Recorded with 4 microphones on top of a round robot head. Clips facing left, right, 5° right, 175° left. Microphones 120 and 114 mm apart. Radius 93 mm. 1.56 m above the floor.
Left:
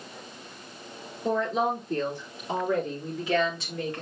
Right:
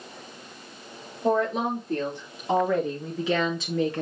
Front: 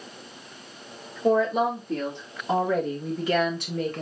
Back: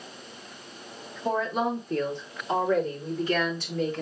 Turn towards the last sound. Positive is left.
turn(degrees=-65)